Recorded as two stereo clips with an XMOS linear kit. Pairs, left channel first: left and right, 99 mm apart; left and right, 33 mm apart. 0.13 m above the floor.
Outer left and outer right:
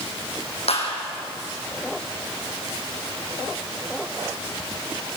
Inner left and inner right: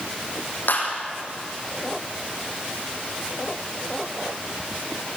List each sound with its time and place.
0.7 s a clap: 75° left (ahead or behind), 6 m